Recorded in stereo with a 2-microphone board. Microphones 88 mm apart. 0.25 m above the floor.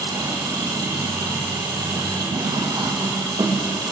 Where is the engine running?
50° right (ahead or behind), 4.5 m.